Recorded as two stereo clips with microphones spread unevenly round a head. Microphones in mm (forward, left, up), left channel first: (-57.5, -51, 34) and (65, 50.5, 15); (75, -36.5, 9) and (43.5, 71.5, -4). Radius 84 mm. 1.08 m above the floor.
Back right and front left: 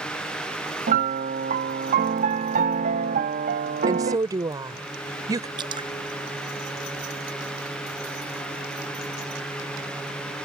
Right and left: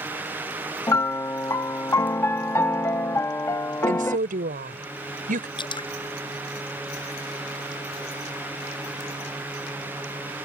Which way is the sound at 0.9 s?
5° right.